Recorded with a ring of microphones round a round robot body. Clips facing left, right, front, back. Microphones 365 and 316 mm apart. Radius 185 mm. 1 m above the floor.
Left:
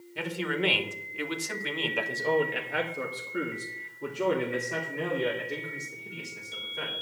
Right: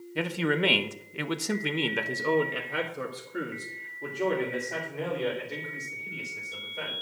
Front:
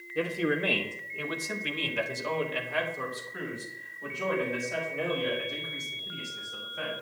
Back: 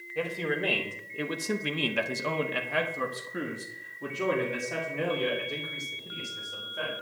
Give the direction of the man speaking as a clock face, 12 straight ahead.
2 o'clock.